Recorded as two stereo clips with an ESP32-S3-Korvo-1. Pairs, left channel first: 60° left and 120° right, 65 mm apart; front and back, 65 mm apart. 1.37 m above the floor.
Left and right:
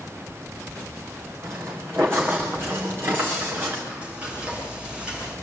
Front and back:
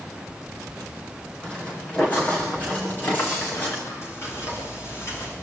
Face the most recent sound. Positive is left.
turn(degrees=-50)